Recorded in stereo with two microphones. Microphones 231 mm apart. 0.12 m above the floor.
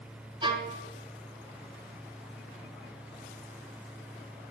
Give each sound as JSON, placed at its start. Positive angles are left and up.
{"t": 0.4, "sound": "a violin", "side_deg": -20, "distance_m": 0.9}